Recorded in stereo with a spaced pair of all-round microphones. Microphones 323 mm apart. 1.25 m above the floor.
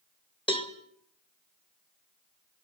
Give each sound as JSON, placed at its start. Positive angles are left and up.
{"t": 0.5, "sound": "a cowbell", "side_deg": 15, "distance_m": 1.8}